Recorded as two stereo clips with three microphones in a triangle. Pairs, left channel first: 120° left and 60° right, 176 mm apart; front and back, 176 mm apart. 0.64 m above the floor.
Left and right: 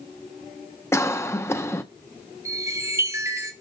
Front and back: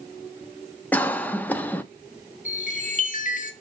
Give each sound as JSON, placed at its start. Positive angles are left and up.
{"t": 0.9, "sound": "a cough", "azimuth_deg": 65, "distance_m": 0.8}
{"t": 2.5, "sound": "a chime", "azimuth_deg": 10, "distance_m": 1.7}